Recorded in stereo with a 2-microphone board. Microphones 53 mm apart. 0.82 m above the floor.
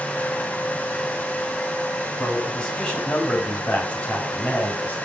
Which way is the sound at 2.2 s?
15° left (ahead or behind).